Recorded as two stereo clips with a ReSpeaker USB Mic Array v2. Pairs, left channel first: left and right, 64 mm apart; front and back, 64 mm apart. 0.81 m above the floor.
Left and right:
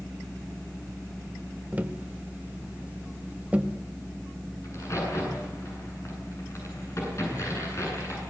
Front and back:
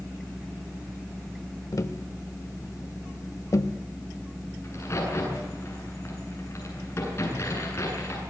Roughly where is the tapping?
Ahead right.